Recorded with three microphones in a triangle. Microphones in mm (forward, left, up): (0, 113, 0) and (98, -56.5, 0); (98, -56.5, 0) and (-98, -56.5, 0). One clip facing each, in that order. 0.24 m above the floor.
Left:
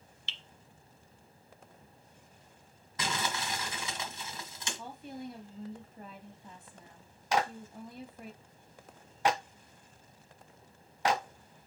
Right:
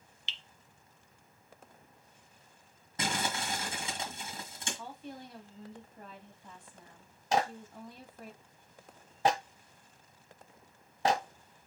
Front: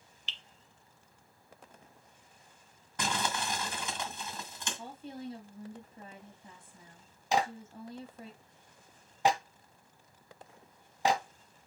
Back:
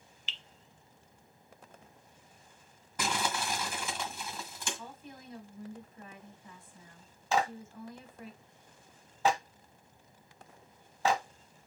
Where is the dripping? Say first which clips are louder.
Right 1 dB, back 1 dB; straight ahead, 0.6 m.